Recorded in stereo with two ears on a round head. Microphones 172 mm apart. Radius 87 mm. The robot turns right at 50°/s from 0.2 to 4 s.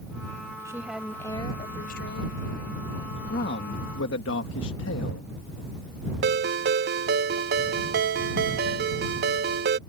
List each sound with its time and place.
0.7 s a woman speaking: 15° right; by 2.8 s 90° left
3.3 s a man speaking: 50° left; by 5.3 s 85° left
6.2 s a ringtone: 50° right (ahead or behind)